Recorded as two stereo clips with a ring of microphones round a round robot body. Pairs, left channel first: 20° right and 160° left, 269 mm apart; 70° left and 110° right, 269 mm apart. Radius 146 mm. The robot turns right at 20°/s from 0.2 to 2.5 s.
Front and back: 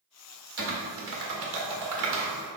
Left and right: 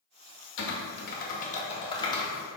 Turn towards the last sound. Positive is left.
turn(degrees=150)